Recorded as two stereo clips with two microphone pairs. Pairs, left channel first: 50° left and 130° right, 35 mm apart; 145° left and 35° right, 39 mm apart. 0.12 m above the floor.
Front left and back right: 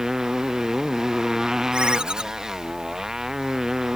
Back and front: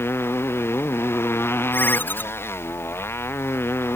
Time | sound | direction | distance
0.0 | a motorcycle | 160° left | ?
1.7 | a ringtone | 170° left | ?